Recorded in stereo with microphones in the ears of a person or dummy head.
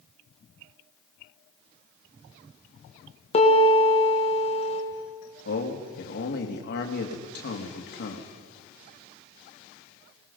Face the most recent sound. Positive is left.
turn(degrees=50)  # may be behind; listen again after turning